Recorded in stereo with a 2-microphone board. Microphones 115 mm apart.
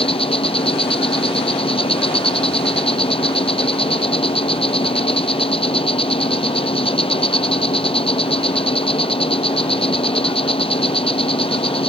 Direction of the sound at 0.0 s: 55° left (ahead or behind).